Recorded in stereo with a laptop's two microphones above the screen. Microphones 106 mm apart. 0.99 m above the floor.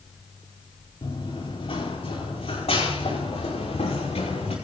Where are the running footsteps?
55° left (ahead or behind), 5 m; by 4.5 s 80° left, 5.5 m.